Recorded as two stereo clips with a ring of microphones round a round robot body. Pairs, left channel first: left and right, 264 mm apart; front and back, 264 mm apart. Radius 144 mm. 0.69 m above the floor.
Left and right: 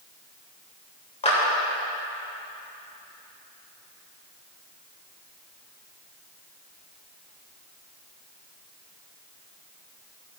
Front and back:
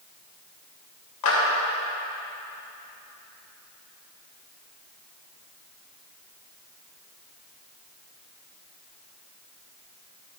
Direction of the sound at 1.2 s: 25° left.